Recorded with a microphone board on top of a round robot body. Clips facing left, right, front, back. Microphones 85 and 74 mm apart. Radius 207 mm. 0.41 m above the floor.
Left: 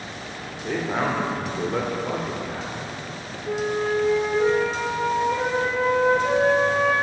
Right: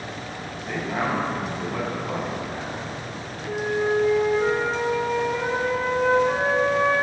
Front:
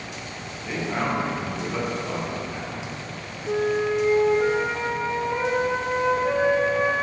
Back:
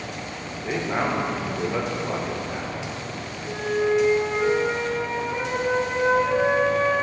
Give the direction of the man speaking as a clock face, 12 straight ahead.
8 o'clock.